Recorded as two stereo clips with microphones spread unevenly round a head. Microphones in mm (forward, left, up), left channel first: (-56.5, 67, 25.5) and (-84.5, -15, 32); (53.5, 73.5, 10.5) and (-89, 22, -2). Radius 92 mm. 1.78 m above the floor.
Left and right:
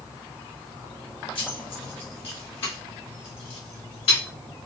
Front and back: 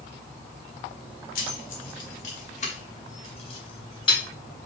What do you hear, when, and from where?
1.4 s keys jangling: 20° left, 1.6 m; by 4.2 s 70° left, 2.0 m